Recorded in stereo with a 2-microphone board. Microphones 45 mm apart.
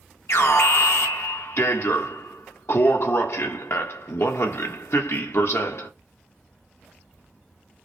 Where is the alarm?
70° left (ahead or behind), 1.2 m.